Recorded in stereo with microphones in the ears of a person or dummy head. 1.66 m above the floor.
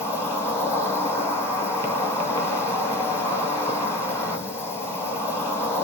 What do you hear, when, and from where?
0.0 s an insect: 10° left (ahead or behind), 1.1 m